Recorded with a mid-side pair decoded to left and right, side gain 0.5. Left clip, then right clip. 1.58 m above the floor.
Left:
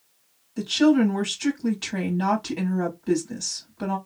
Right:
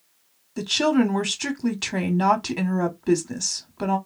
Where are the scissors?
I don't hear scissors.